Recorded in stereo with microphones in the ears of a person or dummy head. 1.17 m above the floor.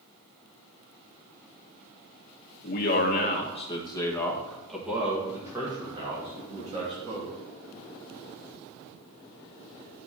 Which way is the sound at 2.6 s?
50° left (ahead or behind).